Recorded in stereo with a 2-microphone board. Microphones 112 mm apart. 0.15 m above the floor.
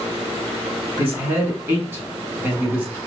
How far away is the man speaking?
About 1.4 m.